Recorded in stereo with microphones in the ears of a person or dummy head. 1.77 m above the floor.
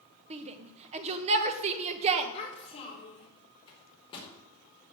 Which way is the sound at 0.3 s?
35° right (ahead or behind).